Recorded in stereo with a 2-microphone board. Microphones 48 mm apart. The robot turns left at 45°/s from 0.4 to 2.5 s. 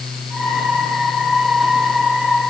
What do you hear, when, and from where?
Only background noise.